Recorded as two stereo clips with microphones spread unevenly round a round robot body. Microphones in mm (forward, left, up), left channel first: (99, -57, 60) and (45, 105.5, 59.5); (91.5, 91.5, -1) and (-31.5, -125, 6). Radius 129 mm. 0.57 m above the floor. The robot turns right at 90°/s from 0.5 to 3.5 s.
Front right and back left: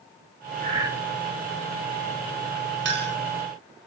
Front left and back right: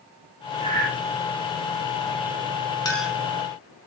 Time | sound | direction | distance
0.6 | breathing | 160° left | 4.5 m
2.9 | a clink | 135° left | 3.5 m